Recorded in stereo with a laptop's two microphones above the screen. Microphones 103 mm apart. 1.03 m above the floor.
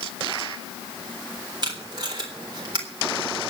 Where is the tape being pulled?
40° right (ahead or behind), 3.5 m.